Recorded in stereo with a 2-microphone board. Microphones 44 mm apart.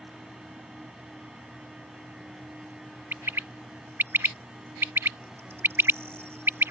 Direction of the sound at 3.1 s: 70° right (ahead or behind).